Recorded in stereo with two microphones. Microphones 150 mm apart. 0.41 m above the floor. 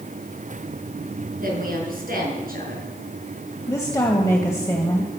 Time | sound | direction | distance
1.4 | a woman speaking | 75° right (ahead or behind) | 6 m
3.7 | a woman speaking | 20° left (ahead or behind) | 2 m